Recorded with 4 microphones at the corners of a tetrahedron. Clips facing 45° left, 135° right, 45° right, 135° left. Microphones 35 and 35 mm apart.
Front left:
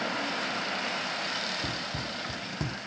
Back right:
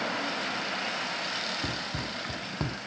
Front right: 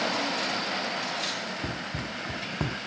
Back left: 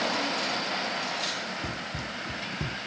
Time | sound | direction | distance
1.6 | running footsteps | 100° right | 1.1 m